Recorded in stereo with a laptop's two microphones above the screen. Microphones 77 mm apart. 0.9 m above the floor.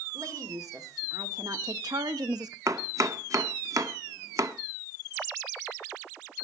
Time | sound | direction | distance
0.1 | a woman speaking | 50° right (ahead or behind) | 3 m
2.7 | chopping | 45° right (ahead or behind) | 0.7 m